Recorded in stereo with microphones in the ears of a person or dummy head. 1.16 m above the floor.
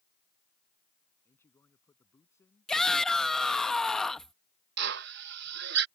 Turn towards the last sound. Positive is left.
turn(degrees=-70)  # may be behind; listen again after turning